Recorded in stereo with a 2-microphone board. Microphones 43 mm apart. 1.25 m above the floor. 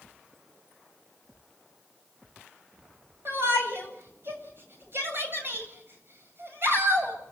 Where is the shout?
55° right (ahead or behind), 8 m.